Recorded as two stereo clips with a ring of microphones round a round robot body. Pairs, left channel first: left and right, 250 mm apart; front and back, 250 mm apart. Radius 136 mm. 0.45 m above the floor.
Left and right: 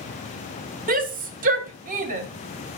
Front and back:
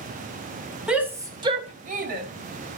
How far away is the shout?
About 1.2 m.